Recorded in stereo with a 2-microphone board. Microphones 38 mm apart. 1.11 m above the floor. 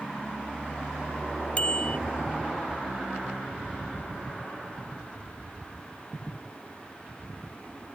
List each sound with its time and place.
1.6 s a bicycle bell: 30° left (ahead or behind)